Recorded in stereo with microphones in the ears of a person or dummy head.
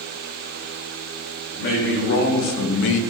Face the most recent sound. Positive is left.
turn(degrees=65)  # may be behind; listen again after turning